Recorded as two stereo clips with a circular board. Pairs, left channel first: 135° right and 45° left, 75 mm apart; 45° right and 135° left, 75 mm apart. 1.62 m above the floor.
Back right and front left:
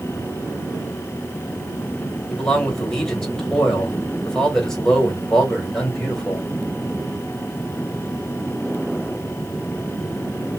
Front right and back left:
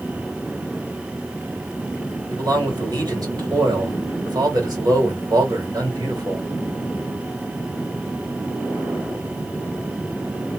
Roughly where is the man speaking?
Behind left.